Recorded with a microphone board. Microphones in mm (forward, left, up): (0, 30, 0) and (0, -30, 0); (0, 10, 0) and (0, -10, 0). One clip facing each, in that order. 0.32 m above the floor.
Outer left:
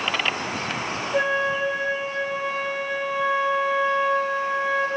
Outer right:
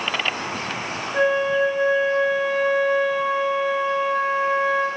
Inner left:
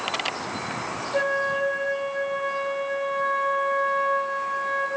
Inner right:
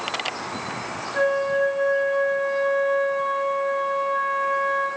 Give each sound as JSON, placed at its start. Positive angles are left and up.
{"t": 1.1, "sound": "a flute", "side_deg": 60, "distance_m": 1.4}